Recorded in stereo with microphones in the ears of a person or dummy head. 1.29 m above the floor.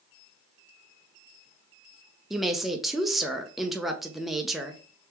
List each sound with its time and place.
2.3 s a woman speaking: centre (ahead or behind), 0.6 m